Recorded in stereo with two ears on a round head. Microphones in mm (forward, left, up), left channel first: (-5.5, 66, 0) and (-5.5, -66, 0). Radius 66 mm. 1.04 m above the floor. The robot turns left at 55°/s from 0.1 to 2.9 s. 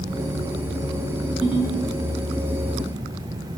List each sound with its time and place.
1.4 s a ringtone: 5° right (ahead or behind), 1.8 m; by 1.8 s 25° right (ahead or behind), 1.8 m